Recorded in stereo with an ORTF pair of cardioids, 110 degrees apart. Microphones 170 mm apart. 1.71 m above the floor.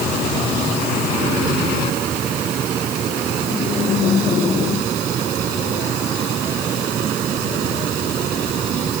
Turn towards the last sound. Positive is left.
No sound to turn to.